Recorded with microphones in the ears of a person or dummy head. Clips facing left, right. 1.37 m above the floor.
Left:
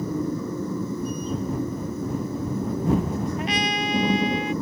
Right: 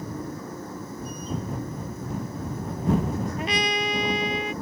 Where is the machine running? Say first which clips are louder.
Left 8 dB; 90° left.